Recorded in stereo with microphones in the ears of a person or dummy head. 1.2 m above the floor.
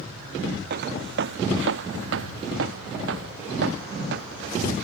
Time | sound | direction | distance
0.7 | footsteps | 65° right (ahead or behind) | ?